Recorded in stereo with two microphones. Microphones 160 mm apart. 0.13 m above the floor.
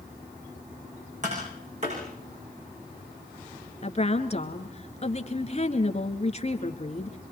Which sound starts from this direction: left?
A woman speaking, at 3.8 s.